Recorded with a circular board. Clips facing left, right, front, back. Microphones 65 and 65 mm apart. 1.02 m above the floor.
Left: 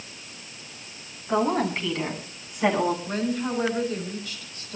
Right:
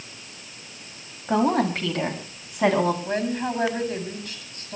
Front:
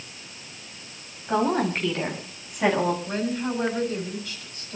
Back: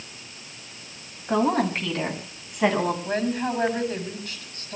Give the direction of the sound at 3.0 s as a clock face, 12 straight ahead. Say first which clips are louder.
Right 1 dB, back 2 dB; 4 o'clock.